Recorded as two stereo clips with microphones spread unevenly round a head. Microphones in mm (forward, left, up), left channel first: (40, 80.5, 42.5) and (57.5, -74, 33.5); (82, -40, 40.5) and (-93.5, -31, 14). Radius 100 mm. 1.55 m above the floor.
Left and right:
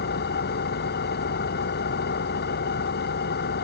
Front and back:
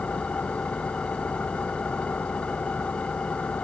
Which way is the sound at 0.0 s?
80° left.